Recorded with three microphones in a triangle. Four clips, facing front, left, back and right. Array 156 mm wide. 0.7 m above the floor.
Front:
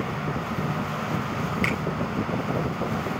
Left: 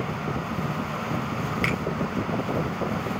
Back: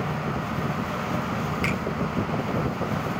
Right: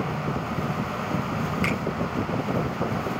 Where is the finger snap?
60° left, 4 m.